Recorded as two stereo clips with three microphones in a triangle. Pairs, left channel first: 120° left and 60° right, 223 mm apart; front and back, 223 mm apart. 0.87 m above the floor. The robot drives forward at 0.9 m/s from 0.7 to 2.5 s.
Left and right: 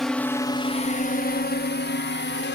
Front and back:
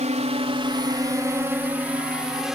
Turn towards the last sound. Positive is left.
turn(degrees=90)